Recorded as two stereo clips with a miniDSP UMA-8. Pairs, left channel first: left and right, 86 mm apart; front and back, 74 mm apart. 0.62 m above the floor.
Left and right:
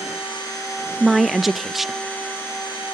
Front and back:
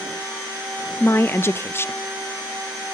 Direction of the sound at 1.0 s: 5° right.